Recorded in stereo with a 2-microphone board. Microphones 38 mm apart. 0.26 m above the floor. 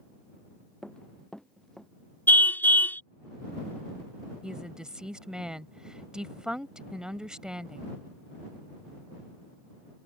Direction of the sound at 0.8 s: 15° left (ahead or behind).